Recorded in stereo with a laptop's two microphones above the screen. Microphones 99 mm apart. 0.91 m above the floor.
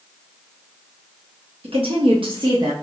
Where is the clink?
I don't hear a clink.